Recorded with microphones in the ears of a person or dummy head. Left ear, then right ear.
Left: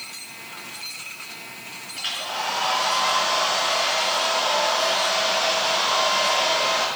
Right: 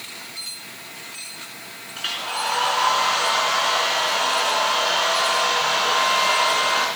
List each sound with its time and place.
1.9 s a hair dryer: 20° right (ahead or behind), 4 m